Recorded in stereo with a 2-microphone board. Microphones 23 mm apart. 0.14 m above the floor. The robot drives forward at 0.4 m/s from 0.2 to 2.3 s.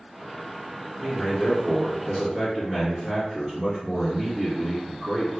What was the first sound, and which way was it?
A man speaking, 15° left (ahead or behind).